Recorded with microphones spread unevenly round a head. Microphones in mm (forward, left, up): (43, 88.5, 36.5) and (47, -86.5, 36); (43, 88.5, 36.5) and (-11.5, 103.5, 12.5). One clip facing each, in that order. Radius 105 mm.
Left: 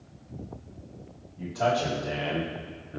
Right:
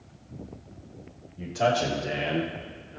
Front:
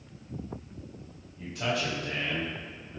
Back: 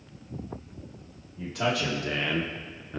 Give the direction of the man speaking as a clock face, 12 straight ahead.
5 o'clock.